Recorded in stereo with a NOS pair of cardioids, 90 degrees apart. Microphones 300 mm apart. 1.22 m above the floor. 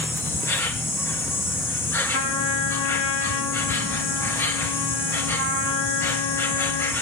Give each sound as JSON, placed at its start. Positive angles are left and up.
{"t": 0.0, "sound": "an insect", "azimuth_deg": 10, "distance_m": 0.9}
{"t": 2.1, "sound": "a trumpet", "azimuth_deg": 55, "distance_m": 1.2}